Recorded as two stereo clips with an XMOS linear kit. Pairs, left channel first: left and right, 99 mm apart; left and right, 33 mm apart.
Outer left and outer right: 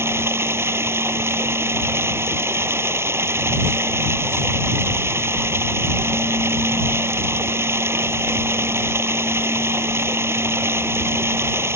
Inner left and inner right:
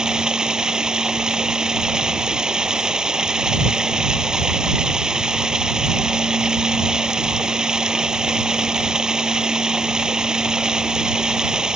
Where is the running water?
25° right (ahead or behind).